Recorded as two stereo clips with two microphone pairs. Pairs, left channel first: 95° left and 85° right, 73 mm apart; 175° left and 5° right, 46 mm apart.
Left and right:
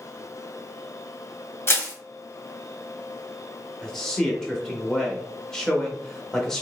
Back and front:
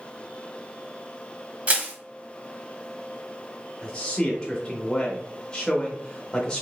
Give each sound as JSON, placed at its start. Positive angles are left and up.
{"t": 1.7, "sound": "crushing", "azimuth_deg": 50, "distance_m": 1.1}
{"t": 3.8, "sound": "a man speaking", "azimuth_deg": 160, "distance_m": 0.8}